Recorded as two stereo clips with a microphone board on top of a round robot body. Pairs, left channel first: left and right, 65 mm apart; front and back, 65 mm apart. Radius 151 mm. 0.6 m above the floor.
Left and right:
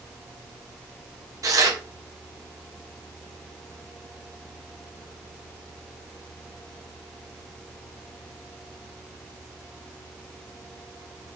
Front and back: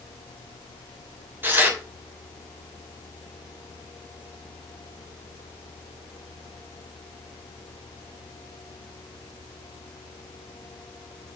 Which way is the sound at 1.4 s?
125° right.